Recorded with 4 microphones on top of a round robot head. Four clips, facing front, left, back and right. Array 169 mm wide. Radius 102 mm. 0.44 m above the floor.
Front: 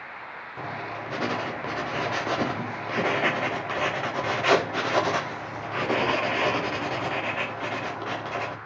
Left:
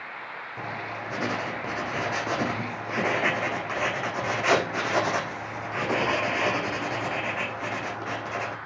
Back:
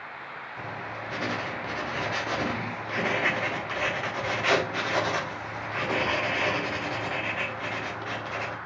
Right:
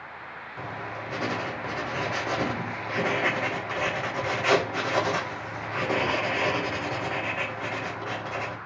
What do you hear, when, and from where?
0.6 s writing: 15° left, 1.5 m